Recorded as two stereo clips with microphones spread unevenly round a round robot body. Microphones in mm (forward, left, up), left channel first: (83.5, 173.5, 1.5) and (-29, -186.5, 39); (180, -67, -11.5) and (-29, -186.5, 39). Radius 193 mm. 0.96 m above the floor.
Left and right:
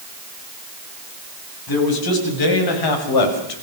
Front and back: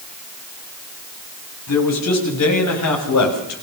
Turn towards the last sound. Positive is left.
turn(degrees=50)